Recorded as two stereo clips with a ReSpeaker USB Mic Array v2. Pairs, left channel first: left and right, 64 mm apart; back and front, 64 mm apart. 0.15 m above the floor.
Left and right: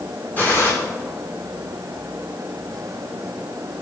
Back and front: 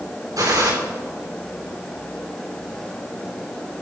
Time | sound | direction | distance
0.4 | a gunshot | 25° left | 7.5 m